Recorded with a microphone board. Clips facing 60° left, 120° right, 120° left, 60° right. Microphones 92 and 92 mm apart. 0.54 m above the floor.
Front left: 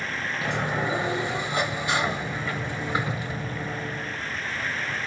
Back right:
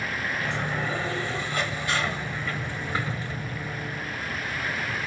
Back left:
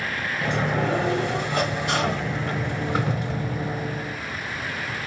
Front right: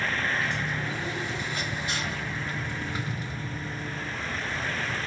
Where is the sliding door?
130° left, 1.3 m.